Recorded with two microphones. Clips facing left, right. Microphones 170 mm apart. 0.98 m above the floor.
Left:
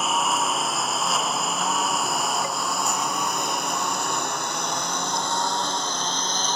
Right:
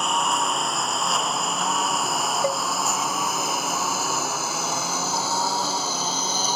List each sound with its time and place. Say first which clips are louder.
0.0 s a lawn mower: even; centre (ahead or behind); by 6.6 s 10° right (ahead or behind)
2.4 s a cowbell: right 5 dB; 55° right (ahead or behind)